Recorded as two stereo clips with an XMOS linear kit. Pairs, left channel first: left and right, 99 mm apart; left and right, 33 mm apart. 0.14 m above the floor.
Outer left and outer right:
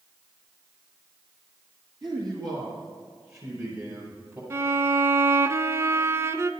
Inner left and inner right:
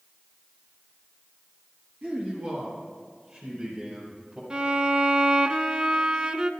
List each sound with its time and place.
2.0 s a man speaking: 45° right (ahead or behind), 3.5 m; by 4.4 s 30° right (ahead or behind), 4.5 m
4.5 s a violin: 30° right (ahead or behind), 0.5 m